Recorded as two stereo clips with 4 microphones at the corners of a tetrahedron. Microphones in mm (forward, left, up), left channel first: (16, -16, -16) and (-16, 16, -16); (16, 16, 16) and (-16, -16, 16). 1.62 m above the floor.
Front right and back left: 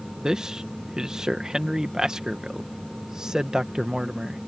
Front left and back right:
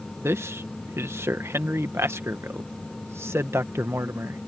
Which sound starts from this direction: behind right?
A man speaking, at 0.2 s.